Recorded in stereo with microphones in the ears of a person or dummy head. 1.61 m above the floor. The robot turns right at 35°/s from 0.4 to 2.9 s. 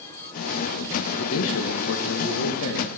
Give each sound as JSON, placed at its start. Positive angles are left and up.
{"t": 1.2, "sound": "a man speaking", "azimuth_deg": 75, "distance_m": 1.5}